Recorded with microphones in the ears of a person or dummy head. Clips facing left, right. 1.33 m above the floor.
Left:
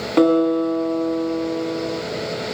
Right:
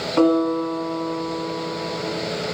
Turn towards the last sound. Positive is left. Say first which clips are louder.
# left 2 dB
turn(degrees=30)  # may be behind; listen again after turning